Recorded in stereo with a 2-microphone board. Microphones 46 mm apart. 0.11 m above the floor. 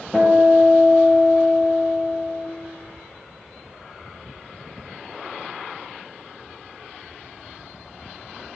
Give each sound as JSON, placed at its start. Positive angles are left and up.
{"t": 0.1, "sound": "a guitar", "side_deg": -25, "distance_m": 0.8}